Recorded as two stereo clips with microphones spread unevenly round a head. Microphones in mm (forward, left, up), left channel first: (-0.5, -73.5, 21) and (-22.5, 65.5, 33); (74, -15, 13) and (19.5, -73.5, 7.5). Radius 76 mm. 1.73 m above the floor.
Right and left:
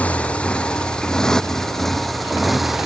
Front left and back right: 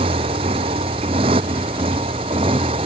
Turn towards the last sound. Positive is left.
turn(degrees=-175)